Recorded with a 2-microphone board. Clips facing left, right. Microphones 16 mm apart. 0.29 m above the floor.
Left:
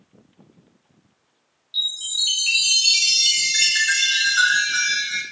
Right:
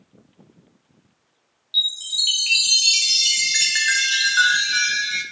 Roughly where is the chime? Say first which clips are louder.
Right 2 dB; centre.